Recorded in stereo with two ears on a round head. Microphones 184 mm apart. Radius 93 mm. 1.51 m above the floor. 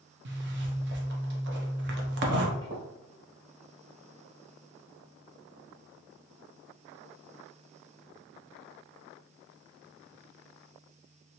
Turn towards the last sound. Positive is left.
turn(degrees=-20)  # may be behind; listen again after turning